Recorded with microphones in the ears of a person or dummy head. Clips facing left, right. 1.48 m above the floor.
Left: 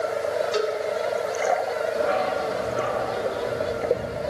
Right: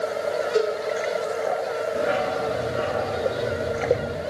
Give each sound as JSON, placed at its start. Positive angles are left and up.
{"t": 0.5, "sound": "a cowbell", "side_deg": 80, "distance_m": 5.5}
{"t": 1.9, "sound": "a dog barking", "side_deg": -20, "distance_m": 3.0}